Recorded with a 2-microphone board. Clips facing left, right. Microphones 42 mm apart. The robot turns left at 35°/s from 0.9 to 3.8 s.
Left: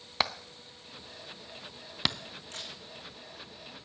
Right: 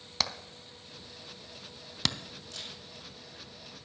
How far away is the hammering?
About 0.5 m.